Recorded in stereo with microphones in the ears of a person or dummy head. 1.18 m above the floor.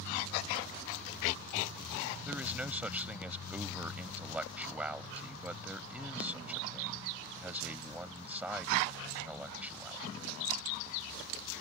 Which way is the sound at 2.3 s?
5° right (ahead or behind).